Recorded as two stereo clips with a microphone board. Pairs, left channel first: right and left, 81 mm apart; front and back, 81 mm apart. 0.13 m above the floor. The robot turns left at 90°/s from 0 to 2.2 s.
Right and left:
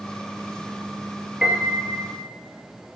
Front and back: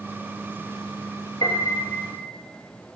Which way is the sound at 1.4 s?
10° left.